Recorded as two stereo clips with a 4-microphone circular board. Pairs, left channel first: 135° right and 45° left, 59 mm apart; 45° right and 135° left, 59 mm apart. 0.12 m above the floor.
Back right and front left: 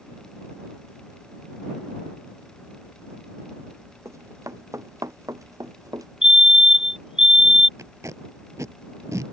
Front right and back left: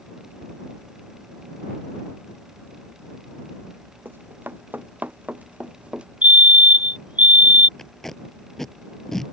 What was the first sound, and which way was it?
Running footsteps, 80° left.